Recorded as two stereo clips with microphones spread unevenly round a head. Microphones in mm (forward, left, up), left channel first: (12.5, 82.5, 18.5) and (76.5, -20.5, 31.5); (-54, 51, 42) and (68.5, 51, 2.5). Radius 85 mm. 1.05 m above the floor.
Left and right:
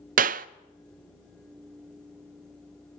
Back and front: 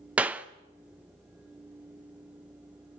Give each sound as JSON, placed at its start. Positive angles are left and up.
{"t": 0.2, "sound": "a clap", "azimuth_deg": -75, "distance_m": 0.6}